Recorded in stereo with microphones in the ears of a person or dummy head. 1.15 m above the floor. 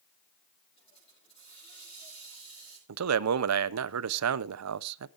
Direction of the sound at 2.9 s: 85° right.